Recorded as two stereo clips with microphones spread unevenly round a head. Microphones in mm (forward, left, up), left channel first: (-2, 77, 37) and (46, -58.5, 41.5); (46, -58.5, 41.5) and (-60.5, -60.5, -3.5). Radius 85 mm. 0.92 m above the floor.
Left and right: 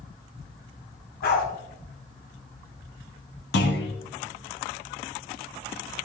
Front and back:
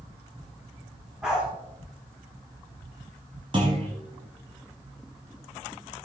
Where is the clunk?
110° left, 1.8 m.